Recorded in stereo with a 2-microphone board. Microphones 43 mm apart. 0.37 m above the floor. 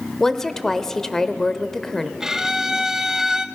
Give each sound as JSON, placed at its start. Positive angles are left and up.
{"t": 0.2, "sound": "a woman speaking", "side_deg": 10, "distance_m": 1.0}
{"t": 2.2, "sound": "a violin", "side_deg": -10, "distance_m": 0.8}